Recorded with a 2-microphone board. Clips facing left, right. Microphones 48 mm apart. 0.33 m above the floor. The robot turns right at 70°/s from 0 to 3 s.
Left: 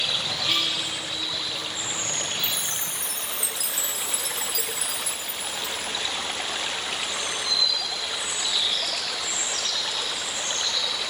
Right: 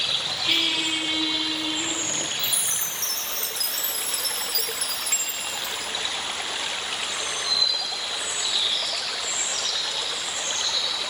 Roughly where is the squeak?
Behind.